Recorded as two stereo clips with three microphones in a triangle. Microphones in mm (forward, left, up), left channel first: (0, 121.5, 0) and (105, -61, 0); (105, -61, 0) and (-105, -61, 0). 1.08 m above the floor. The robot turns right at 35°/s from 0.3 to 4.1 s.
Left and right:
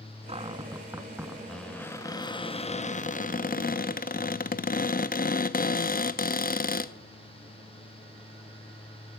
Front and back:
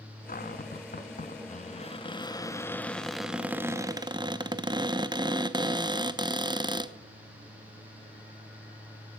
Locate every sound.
0.3 s a cupboard door: 10° right, 0.5 m; by 6.9 s 125° left, 0.5 m